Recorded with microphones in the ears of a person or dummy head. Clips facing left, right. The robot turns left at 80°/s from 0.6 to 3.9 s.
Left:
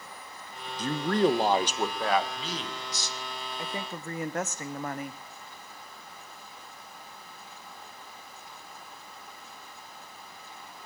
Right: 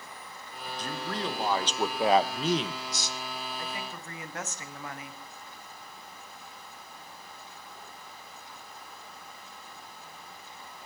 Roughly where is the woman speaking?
Left.